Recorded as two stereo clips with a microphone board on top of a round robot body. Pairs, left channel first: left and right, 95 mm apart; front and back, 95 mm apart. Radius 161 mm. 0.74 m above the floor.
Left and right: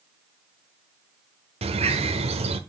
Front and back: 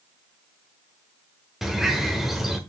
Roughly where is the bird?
Right.